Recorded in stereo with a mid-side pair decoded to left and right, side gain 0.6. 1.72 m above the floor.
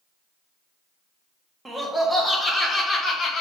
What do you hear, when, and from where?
1.6 s laughter: 10° right, 1.1 m; by 3.4 s 45° left, 0.9 m